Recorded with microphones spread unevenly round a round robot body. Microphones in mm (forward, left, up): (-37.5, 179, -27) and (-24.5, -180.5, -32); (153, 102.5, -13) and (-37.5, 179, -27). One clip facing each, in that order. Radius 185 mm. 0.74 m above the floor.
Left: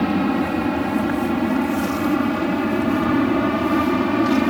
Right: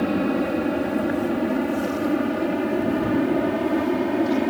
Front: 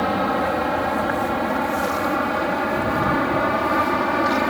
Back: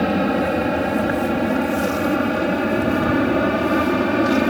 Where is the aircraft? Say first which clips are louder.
Left 2 dB, back 3 dB; 135° left; by 4.5 s 125° left.